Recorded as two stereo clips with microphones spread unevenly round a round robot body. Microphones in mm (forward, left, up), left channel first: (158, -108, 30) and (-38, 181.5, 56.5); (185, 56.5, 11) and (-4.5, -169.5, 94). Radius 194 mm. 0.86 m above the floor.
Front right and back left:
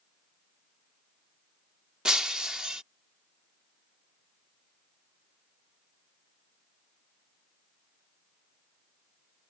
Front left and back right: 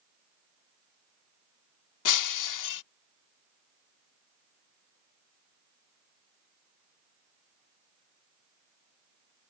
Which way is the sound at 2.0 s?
35° left.